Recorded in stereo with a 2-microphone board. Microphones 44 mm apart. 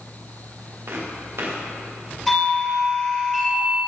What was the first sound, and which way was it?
Footsteps, 65° right (ahead or behind).